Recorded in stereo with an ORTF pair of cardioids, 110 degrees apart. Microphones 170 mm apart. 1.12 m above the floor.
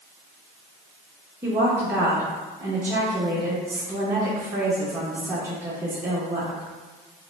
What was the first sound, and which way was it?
A woman speaking, 15° right.